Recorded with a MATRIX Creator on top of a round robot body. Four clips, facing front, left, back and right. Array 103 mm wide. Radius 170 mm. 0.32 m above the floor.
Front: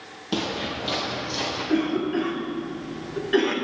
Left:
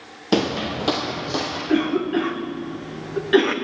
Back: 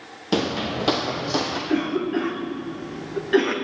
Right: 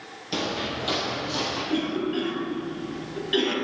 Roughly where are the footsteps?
Left.